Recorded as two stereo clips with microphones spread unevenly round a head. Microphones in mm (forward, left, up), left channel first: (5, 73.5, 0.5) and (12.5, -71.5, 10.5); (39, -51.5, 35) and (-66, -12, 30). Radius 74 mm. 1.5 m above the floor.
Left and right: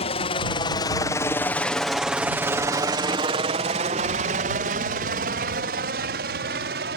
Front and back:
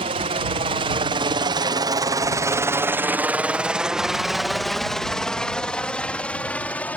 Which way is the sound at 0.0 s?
130° left.